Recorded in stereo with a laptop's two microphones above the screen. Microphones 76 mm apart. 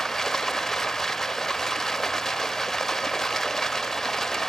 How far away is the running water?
About 0.9 m.